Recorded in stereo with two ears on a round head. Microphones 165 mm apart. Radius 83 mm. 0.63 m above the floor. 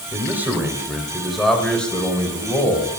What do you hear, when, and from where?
0.1 s a man speaking: 15° right (ahead or behind), 3 m; by 3.0 s 15° left (ahead or behind), 4 m